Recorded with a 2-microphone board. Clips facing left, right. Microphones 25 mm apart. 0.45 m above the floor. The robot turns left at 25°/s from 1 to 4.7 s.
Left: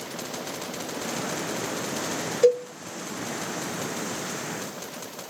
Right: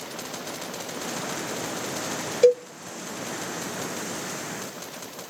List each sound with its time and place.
2.4 s a cowbell: 25° right (ahead or behind), 1.2 m; by 2.7 s 30° right (ahead or behind), 1.2 m